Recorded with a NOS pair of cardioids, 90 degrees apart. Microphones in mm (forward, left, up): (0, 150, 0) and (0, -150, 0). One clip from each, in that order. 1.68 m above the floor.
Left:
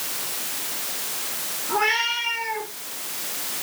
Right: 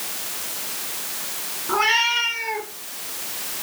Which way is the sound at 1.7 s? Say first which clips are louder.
Right 3 dB; 55° right.